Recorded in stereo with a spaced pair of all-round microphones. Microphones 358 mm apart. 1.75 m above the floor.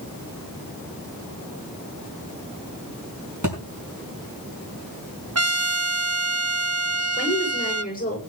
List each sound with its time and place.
3.4 s a thud: 60° right (ahead or behind), 5 m
5.3 s a trumpet: 45° right (ahead or behind), 0.9 m
7.2 s a woman speaking: 25° left (ahead or behind), 6.5 m